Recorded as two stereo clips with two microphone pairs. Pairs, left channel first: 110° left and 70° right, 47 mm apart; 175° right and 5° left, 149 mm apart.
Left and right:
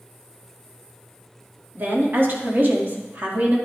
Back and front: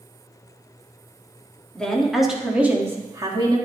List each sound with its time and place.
1.8 s a woman speaking: 95° right, 1.6 m; by 3.6 s 45° right, 1.5 m